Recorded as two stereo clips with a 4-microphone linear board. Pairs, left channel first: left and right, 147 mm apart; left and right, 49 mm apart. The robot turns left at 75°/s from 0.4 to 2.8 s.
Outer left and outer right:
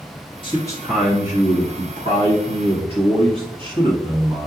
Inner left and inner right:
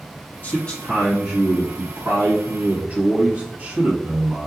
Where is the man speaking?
40° left, 1.7 m; by 4.5 s 135° right, 1.7 m.